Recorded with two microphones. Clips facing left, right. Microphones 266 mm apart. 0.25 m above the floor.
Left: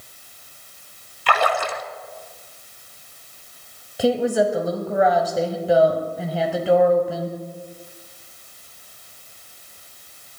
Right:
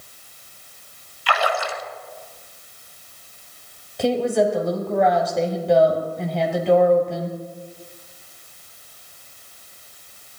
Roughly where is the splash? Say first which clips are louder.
Left 2 dB; left.